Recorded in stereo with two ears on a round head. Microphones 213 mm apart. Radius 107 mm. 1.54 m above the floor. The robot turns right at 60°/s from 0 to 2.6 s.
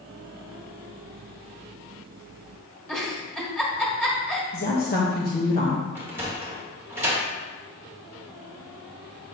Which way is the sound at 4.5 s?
45° left (ahead or behind).